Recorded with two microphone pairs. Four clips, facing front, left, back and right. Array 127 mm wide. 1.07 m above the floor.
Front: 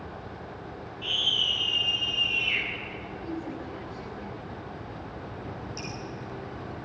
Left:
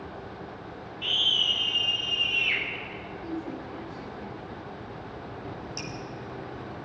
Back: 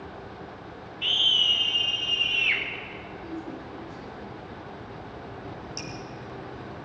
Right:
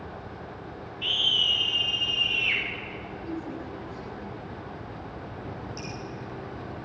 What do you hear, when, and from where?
1.0 s a scream: 175° right, 7 m; by 2.6 s straight behind, 8.5 m
3.2 s a woman speaking: 40° left, 6.5 m
5.8 s dripping: 100° left, 8.5 m